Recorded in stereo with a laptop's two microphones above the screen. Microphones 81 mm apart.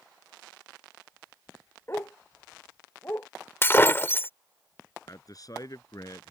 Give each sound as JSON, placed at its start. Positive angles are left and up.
{"t": 1.9, "sound": "a dog barking", "side_deg": 30}
{"t": 3.6, "sound": "breaking glass", "side_deg": 30}
{"t": 5.1, "sound": "a man speaking", "side_deg": 50}